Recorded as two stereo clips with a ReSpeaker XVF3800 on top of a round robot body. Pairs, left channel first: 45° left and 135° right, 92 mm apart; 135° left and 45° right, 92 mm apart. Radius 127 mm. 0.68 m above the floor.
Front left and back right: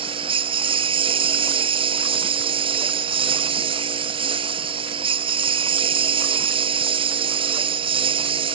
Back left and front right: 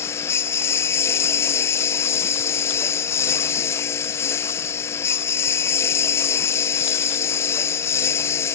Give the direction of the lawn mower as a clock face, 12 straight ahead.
5 o'clock.